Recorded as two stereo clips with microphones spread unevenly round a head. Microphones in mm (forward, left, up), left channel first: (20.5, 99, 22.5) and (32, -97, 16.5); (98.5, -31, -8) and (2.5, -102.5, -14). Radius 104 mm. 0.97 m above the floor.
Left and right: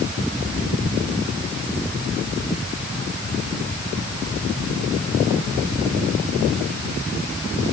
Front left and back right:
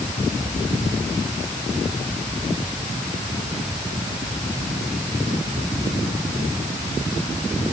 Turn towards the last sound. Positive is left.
No sound to turn to.